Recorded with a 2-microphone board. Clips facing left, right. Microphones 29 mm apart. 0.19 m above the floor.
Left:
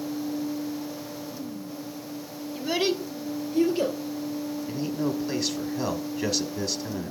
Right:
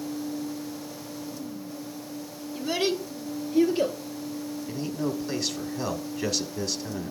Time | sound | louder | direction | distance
2.5 | a child speaking | left 1 dB | 10° left (ahead or behind) | 1.2 m
4.7 | a man speaking | left 1 dB | 5° left (ahead or behind) | 1.0 m